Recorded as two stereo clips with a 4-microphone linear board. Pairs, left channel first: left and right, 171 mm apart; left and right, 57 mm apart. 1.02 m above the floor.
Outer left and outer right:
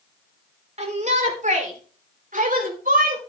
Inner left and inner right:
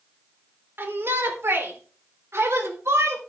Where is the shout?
45° right (ahead or behind), 3.5 m; by 3.2 s 60° right (ahead or behind), 4.5 m.